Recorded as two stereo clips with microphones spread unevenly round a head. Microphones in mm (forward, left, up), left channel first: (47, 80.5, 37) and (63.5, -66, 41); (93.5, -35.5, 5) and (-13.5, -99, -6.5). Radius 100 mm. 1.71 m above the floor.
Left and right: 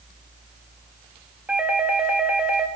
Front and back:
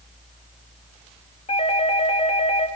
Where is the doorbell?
Straight ahead, 3.5 m.